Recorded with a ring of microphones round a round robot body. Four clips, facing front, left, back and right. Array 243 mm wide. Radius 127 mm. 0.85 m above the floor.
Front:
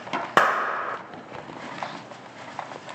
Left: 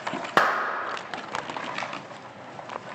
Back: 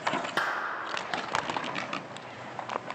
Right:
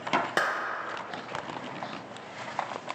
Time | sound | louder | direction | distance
0.4 | a clap | left 6 dB, front 10 dB | 30° left | 0.5 m